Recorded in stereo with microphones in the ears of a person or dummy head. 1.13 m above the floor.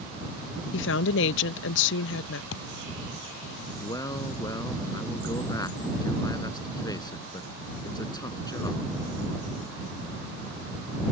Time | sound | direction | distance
0.7 | a woman speaking | 65° left (ahead or behind) | ?
2.5 | a thud | 75° left (ahead or behind) | ?
3.8 | a man speaking | 20° left (ahead or behind) | ?